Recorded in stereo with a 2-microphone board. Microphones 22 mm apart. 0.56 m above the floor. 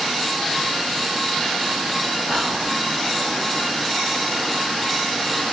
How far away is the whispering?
About 1.8 m.